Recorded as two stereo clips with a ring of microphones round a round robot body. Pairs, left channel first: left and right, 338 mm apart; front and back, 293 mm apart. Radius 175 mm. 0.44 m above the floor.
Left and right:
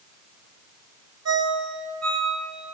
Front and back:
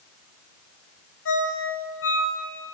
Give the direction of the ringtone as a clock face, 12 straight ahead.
2 o'clock.